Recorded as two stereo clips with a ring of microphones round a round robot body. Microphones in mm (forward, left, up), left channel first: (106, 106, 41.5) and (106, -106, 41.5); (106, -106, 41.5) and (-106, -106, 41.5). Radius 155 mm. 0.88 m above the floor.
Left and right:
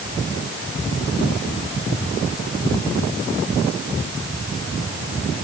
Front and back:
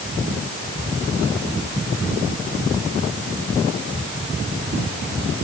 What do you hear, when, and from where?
Only background noise.